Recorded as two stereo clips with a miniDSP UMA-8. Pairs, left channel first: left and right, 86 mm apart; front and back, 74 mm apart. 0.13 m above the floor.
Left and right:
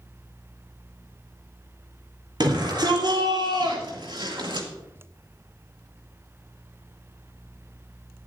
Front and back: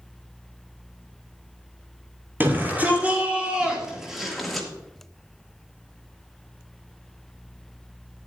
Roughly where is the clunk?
I don't hear a clunk.